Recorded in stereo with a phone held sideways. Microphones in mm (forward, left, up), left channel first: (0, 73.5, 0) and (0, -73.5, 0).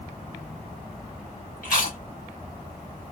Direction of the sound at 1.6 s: 80° left.